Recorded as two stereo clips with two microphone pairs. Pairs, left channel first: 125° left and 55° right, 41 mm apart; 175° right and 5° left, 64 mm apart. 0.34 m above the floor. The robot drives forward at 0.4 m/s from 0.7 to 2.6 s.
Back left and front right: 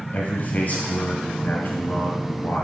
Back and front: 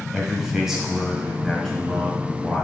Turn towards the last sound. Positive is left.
turn(degrees=120)